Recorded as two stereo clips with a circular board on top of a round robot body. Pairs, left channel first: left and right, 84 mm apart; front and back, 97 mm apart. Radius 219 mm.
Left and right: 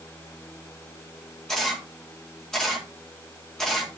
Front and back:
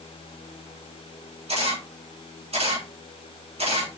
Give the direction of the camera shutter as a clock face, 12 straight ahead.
6 o'clock.